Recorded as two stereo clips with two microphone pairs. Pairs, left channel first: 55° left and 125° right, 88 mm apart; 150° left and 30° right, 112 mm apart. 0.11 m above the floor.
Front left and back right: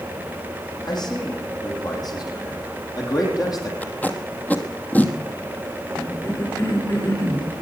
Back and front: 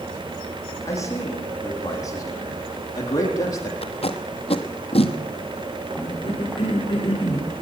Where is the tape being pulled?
125° left, 1.4 m.